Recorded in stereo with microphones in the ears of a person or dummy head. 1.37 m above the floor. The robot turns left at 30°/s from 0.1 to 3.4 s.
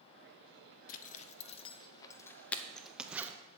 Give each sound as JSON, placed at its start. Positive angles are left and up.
{"t": 0.9, "sound": "a zipper", "side_deg": 45, "distance_m": 0.6}